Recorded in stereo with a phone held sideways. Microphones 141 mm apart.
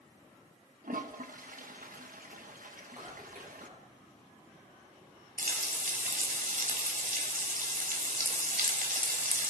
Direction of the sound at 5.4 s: 80° right.